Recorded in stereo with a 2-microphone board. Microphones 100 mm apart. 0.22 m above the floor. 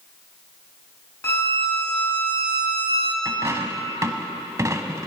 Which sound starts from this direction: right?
A dropped coin, at 3.2 s.